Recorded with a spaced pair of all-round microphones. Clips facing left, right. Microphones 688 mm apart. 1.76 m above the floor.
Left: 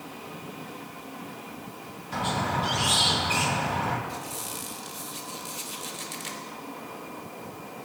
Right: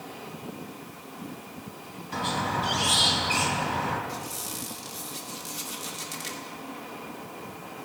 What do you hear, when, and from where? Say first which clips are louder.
2.1 s a squeak: left 1 dB; 20° left (ahead or behind), 3 m
4.1 s a squeak: even; 65° right (ahead or behind), 3 m